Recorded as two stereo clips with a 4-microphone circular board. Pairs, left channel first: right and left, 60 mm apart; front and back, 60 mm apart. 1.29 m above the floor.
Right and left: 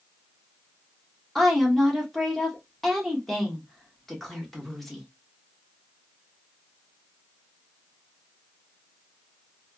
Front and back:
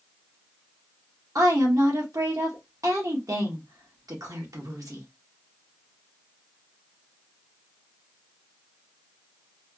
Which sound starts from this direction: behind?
A woman speaking, at 1.4 s.